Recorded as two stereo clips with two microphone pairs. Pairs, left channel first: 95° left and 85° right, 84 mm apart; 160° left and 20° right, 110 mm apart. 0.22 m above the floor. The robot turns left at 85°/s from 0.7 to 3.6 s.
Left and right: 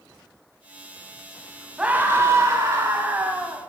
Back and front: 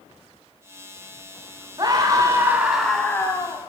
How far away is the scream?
About 1.6 m.